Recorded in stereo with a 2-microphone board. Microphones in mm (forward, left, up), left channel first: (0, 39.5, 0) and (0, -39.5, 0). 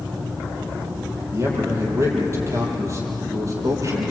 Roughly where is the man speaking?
Right.